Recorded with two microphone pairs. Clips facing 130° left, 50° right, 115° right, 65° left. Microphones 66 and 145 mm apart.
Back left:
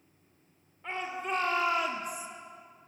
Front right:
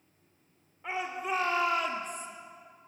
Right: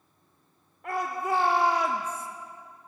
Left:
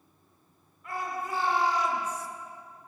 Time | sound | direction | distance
0.8 | a shout | 130° right | 2.5 m